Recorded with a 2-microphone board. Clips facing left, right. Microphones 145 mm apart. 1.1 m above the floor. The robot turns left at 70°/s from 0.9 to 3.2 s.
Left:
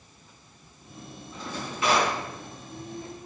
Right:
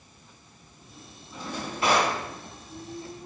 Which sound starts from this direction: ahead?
A drawer, at 1.3 s.